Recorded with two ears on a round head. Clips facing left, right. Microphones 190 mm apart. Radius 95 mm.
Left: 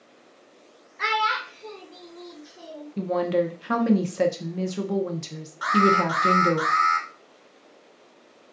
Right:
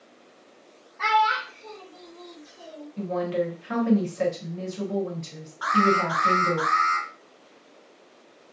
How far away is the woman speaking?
About 0.6 m.